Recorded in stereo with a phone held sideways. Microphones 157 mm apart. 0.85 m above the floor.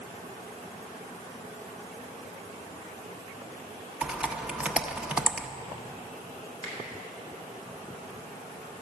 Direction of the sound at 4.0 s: 5° right (ahead or behind).